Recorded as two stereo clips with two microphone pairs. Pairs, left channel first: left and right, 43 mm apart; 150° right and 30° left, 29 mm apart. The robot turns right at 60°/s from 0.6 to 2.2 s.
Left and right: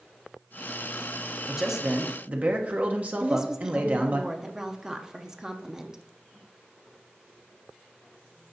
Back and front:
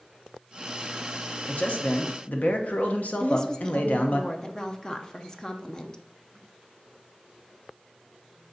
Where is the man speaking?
Straight behind, 0.9 m; by 4.2 s 140° right, 0.9 m.